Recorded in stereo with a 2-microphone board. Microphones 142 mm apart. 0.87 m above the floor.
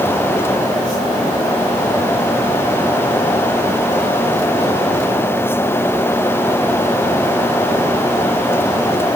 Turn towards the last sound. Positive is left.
No sound to turn to.